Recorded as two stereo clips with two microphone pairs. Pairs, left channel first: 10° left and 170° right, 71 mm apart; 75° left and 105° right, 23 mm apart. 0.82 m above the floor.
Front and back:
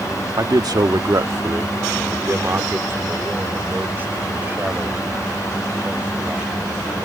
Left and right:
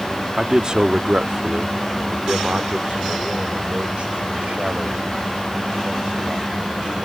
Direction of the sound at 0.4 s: 155° right.